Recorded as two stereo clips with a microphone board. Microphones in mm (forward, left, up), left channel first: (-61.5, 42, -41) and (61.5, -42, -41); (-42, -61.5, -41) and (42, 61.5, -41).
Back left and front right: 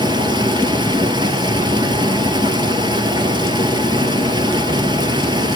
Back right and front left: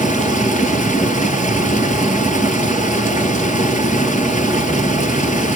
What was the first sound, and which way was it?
Running water, 95° right.